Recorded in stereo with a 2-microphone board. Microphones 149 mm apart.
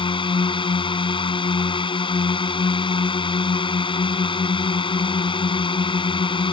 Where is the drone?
35° left (ahead or behind).